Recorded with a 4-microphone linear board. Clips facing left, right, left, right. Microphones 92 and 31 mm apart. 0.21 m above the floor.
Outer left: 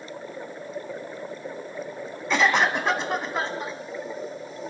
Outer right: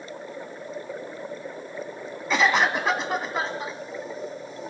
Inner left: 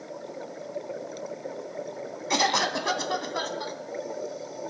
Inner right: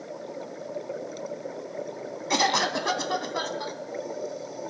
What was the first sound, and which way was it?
A cough, centre (ahead or behind).